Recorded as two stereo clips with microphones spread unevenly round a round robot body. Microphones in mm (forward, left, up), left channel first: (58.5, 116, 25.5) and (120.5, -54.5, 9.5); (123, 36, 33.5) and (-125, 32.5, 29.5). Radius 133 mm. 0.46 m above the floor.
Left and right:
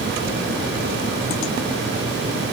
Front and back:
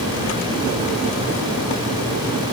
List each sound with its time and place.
Only background noise.